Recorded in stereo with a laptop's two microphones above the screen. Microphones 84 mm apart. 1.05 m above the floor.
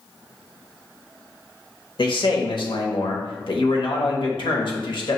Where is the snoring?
I don't hear snoring.